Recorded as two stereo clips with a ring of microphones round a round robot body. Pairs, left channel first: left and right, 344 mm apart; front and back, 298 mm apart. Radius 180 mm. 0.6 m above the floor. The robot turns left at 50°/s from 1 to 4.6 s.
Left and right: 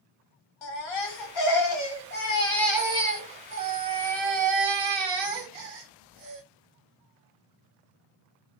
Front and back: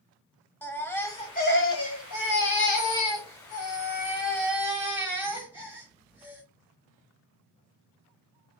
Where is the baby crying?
85° left, 1.4 m; by 6.4 s 95° right, 1.4 m.